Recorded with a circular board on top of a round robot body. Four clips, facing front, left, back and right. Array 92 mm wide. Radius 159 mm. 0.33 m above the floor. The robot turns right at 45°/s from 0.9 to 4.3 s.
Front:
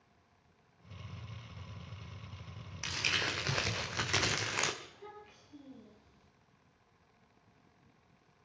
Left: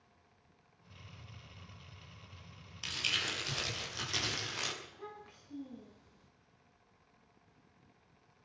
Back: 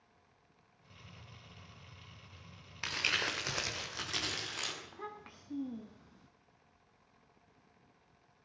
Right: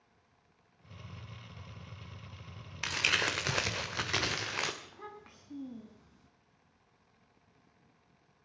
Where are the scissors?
No scissors in this recording.